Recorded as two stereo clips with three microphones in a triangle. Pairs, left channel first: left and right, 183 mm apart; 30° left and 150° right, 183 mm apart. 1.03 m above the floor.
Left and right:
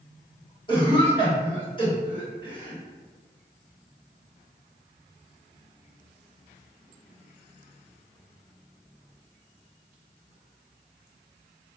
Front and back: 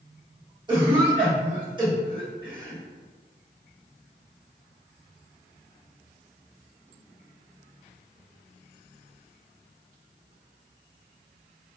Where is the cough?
150° left, 1.4 m.